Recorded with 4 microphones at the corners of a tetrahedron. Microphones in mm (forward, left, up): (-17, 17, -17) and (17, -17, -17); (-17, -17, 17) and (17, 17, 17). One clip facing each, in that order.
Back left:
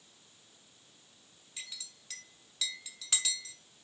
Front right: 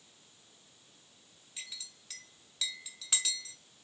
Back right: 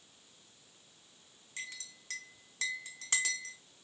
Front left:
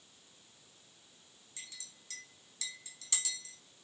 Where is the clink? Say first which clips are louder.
Even, back right 9 dB; 130° right, 0.8 m.